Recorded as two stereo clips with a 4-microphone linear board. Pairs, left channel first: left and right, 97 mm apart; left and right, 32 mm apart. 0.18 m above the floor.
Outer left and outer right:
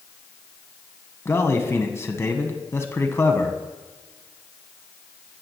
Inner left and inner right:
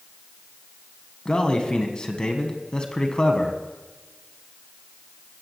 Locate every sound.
1.2 s a man speaking: 25° left (ahead or behind), 1.4 m